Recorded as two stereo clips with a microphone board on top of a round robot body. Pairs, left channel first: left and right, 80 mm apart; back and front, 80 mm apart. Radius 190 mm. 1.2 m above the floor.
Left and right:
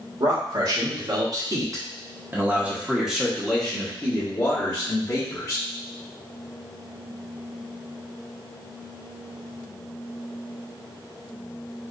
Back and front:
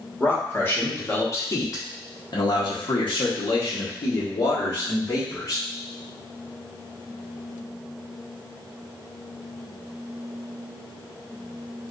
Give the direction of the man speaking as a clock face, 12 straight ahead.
4 o'clock.